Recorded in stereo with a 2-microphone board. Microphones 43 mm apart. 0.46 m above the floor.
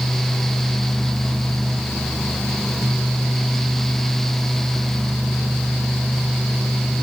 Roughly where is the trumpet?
No trumpet in this recording.